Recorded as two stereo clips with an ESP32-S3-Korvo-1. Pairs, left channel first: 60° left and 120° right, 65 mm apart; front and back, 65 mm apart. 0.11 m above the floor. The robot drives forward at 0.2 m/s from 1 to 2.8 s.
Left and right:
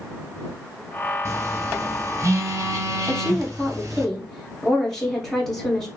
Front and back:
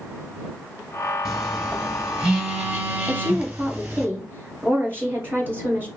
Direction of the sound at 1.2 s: 100° right.